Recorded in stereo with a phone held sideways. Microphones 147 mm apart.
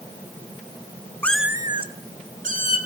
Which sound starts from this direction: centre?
A cat meowing, at 1.2 s.